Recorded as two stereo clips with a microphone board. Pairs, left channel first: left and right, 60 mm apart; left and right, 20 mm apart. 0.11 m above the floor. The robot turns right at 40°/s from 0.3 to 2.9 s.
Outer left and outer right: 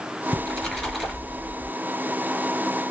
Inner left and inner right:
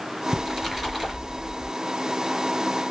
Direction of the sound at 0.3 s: 155° left.